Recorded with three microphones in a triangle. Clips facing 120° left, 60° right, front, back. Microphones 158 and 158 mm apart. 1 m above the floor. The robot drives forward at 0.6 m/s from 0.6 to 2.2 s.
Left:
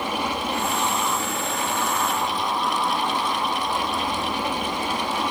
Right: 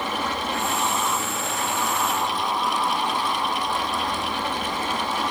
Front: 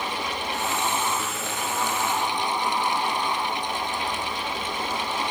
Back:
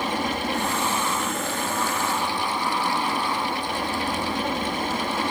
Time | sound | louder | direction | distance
0.0 | an aircraft | left 1 dB, back 4 dB | 165° right | ?